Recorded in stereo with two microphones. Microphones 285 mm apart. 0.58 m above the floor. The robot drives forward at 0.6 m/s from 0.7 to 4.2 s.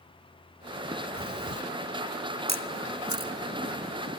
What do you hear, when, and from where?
1.2 s breathing: 50° right (ahead or behind), 2.0 m; by 1.6 s 55° right (ahead or behind), 1.8 m
2.5 s a camera shutter: 70° right (ahead or behind), 1.1 m; by 3.3 s 50° right (ahead or behind), 1.4 m